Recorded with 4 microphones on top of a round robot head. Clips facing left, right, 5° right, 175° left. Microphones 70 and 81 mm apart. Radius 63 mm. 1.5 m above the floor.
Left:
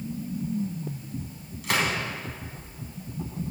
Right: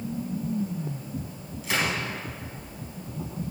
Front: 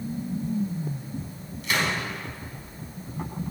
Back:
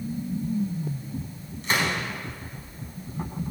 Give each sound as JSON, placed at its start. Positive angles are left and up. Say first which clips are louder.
{"t": 1.6, "sound": "a gunshot", "louder": "left 1 dB, back 1 dB", "azimuth_deg": 120, "distance_m": 4.0}